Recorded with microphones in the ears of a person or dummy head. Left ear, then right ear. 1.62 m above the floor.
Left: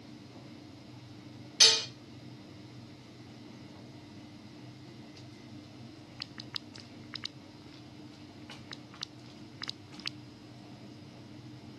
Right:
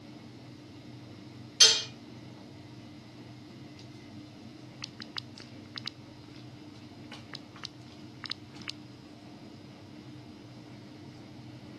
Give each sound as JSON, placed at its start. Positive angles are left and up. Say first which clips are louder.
{"t": 1.6, "sound": "dishes clattering", "louder": "right 1 dB", "side_deg": 15, "distance_m": 0.7}